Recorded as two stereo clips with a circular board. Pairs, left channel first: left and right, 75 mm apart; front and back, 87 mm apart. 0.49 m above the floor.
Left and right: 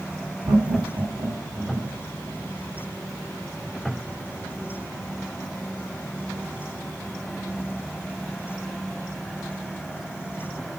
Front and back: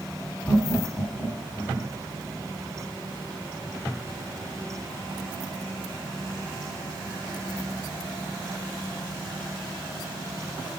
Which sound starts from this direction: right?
Laughter, at 0.5 s.